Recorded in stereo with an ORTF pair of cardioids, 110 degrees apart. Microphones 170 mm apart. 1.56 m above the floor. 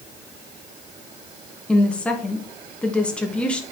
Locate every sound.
1.7 s a woman speaking: 5° left, 2 m